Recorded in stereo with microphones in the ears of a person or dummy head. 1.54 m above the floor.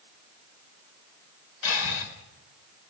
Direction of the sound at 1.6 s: 80° left.